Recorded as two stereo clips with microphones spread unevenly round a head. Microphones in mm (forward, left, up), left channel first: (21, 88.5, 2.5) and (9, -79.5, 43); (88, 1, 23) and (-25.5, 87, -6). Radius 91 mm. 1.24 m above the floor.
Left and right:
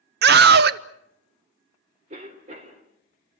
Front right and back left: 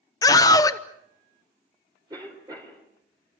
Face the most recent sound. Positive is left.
turn(degrees=-145)